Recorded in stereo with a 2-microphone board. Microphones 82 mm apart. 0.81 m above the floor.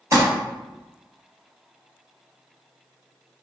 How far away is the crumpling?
About 1.3 m.